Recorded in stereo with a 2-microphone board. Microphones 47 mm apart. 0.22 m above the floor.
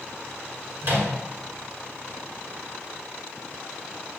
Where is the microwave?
50° right (ahead or behind), 1.8 m.